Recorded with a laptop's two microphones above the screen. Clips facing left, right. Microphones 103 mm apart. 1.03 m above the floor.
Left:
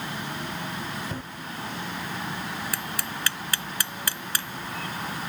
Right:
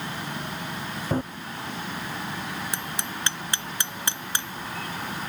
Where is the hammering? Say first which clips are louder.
Even; 25° right (ahead or behind).